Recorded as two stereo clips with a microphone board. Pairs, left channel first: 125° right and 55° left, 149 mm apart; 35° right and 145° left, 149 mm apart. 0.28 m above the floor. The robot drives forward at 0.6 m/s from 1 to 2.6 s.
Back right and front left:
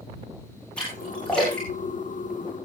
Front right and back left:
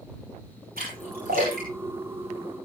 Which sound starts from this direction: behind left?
A splash, at 0.8 s.